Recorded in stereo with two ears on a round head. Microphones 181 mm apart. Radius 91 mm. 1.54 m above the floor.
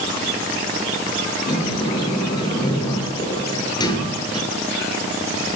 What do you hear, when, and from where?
1.5 s a sliding door: 25° left (ahead or behind), 6 m